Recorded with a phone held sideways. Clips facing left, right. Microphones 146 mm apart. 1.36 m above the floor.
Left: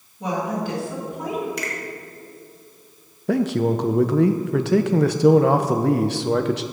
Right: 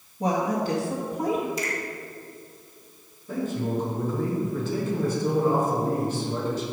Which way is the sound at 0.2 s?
35° right (ahead or behind).